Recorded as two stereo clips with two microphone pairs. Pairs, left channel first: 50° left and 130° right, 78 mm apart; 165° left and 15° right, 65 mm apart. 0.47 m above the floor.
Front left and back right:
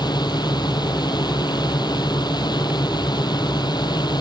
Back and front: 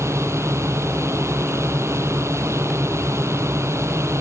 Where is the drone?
30° left.